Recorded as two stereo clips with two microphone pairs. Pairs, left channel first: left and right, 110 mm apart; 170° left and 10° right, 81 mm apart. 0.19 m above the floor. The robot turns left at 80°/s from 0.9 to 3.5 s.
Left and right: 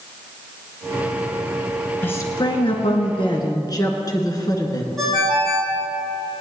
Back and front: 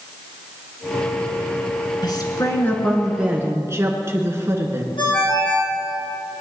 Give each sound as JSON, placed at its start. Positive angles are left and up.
{"t": 2.0, "sound": "a woman speaking", "azimuth_deg": 160, "distance_m": 2.5}
{"t": 5.0, "sound": "a ringtone", "azimuth_deg": 180, "distance_m": 4.5}